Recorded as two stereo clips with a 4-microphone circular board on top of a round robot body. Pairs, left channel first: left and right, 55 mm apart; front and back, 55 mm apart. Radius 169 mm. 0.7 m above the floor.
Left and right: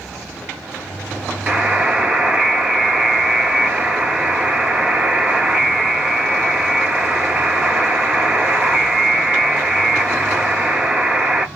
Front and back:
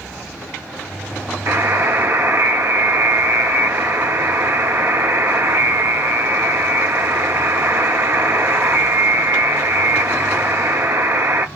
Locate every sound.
1.5 s a buzzer: 160° right, 0.8 m